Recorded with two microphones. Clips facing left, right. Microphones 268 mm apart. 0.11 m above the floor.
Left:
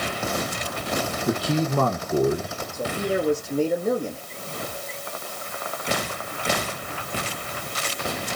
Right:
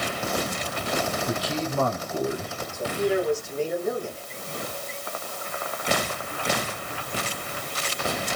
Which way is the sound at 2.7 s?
40° left (ahead or behind).